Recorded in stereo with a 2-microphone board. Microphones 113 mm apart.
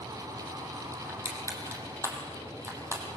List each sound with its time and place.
1.1 s crushing: 25° right (ahead or behind), 4 m